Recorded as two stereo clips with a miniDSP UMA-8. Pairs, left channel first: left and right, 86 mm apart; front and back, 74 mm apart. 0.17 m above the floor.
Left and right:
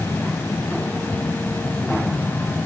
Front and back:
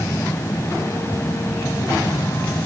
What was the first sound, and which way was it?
Only background noise.